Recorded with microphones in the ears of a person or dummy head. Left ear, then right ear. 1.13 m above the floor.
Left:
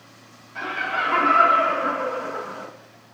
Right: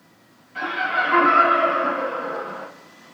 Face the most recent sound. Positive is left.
turn(degrees=5)  # may be behind; listen again after turning